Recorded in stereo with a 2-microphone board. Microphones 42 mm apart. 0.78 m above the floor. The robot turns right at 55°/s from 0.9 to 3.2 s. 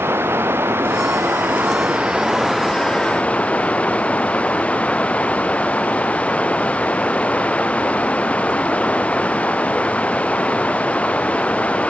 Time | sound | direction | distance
0.0 | running water | 95° right | ?